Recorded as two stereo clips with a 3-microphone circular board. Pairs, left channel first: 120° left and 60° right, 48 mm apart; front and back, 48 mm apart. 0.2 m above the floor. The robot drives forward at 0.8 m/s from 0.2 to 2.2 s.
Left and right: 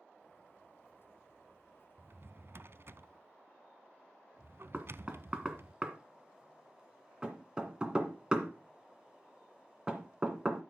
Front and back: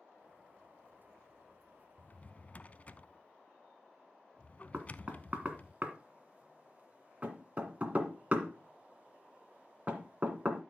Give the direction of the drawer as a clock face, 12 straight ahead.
1 o'clock.